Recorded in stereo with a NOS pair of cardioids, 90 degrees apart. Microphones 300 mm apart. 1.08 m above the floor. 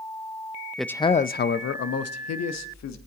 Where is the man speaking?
Straight ahead, 0.5 m; by 3.0 s 65° left, 1.6 m.